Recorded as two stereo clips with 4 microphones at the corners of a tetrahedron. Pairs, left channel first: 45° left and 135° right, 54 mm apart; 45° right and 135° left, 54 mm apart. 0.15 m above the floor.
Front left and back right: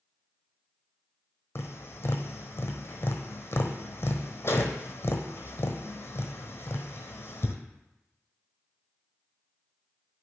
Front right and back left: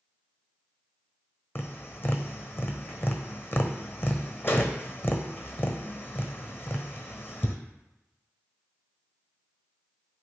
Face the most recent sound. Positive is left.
turn(degrees=0)